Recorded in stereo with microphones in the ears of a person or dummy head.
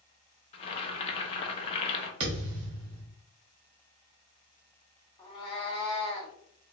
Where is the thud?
25° right (ahead or behind), 0.9 m.